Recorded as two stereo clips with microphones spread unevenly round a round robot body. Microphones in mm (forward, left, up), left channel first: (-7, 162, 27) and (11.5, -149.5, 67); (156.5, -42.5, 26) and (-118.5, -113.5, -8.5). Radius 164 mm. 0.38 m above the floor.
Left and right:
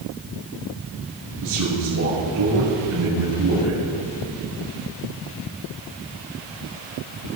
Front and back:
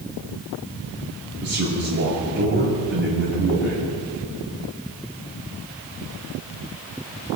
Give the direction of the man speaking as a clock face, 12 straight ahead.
4 o'clock.